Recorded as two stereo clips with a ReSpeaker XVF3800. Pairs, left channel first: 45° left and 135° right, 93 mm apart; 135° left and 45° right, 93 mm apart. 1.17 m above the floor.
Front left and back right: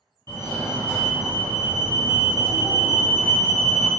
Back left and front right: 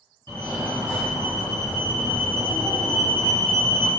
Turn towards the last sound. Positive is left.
turn(degrees=75)